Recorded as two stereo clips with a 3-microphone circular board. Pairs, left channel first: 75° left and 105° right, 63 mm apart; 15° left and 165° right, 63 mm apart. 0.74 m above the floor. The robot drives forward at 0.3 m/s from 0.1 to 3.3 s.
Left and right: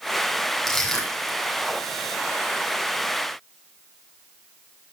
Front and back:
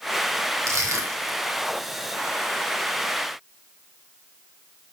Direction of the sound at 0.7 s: 160° left.